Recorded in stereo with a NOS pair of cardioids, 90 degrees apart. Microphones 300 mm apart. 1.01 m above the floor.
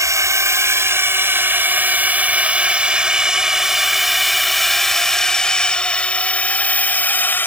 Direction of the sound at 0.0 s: 10° right.